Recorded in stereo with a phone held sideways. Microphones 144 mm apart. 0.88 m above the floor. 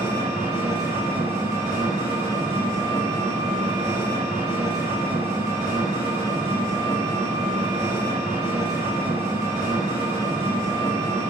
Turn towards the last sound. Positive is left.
turn(degrees=-75)  # may be behind; listen again after turning